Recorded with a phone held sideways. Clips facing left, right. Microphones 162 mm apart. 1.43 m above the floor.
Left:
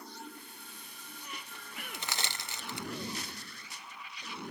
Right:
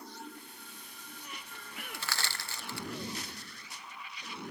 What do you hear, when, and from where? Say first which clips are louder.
1.9 s crushing: even; 20° left (ahead or behind)